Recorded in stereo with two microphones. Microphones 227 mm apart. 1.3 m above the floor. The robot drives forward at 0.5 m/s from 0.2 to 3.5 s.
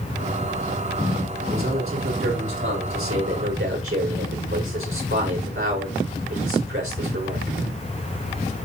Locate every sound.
1.5 s a man speaking: 90° right, 3.5 m; by 7.5 s 75° right (ahead or behind), 3.5 m